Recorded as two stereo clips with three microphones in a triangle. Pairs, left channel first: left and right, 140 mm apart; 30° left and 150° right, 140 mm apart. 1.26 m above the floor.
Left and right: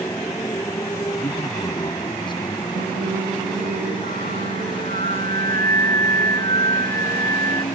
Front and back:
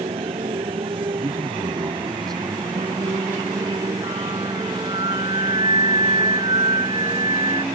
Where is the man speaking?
150° left.